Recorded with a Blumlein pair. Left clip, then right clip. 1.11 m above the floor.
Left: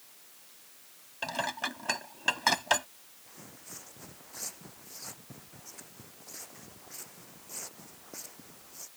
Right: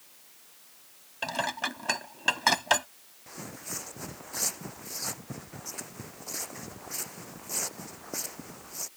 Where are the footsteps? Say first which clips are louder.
Right 10 dB; 65° right.